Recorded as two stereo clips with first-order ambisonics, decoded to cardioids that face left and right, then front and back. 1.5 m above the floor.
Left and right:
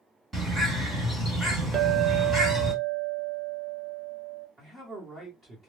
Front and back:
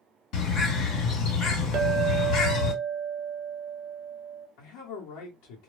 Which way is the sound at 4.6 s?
20° right.